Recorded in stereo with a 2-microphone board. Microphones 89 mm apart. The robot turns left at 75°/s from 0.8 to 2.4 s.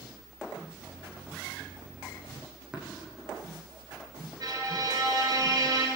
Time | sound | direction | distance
2.7 | tapping | 10° right (ahead or behind) | 5 m
4.4 | a violin | 50° right (ahead or behind) | 2.5 m